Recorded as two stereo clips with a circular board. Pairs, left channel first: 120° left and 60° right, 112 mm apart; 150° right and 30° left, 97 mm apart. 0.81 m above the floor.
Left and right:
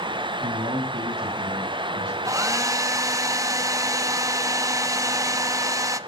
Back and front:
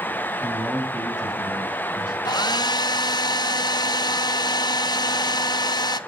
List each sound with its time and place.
0.4 s a man speaking: 60° right, 7 m; by 2.1 s 75° right, 7 m
2.2 s a hair dryer: 115° right, 0.7 m